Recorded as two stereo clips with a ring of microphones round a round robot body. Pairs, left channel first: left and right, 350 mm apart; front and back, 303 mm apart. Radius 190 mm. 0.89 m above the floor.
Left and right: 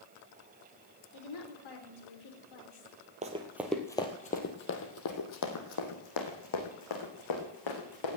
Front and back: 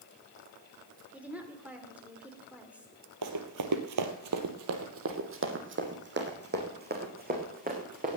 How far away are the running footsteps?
About 1.3 m.